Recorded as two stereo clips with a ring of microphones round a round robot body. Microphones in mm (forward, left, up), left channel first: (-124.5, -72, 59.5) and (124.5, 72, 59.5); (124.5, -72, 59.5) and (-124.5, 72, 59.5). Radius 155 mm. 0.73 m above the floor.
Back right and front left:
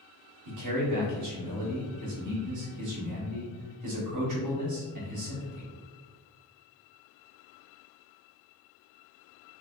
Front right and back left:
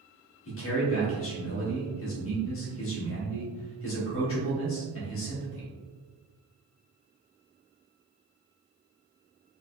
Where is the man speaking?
15° left, 1.6 m.